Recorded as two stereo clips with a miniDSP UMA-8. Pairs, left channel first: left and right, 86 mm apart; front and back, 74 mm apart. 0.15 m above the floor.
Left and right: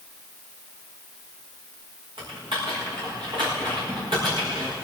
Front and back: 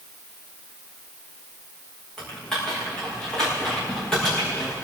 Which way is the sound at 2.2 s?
80° right.